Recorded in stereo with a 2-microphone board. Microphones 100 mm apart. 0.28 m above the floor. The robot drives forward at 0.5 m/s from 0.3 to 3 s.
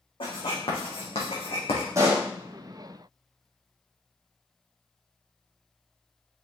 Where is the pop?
30° right (ahead or behind), 4 m.